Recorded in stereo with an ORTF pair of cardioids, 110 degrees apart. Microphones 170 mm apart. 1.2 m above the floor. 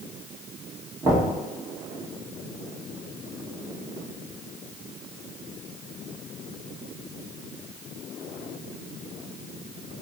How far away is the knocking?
About 1.3 m.